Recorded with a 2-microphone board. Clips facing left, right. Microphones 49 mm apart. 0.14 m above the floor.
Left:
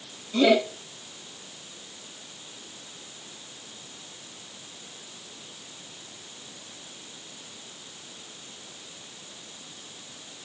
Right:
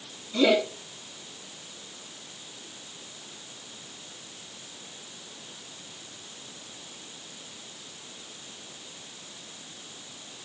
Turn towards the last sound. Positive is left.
turn(degrees=70)  # may be behind; listen again after turning